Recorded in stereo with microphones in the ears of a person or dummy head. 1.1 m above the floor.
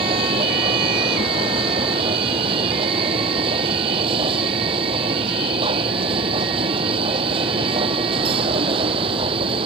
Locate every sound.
0.0 s a machine running: 35° right (ahead or behind)